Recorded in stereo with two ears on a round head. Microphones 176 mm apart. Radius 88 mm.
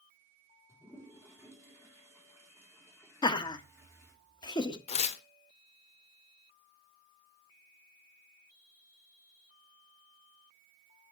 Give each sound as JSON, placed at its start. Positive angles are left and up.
{"t": 0.7, "sound": "a toilet flushing", "side_deg": 15, "distance_m": 3.5}
{"t": 3.2, "sound": "laughter", "side_deg": 20, "distance_m": 0.8}
{"t": 4.9, "sound": "tearing paper", "side_deg": 30, "distance_m": 0.6}